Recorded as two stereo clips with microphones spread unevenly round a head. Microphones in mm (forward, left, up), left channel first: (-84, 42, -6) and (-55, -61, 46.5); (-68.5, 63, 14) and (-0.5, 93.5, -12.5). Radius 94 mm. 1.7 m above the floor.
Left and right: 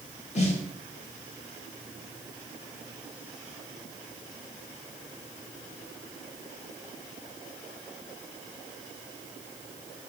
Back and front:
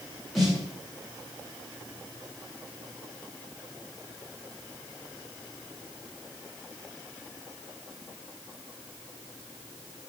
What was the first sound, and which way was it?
A snare drum, 140° left.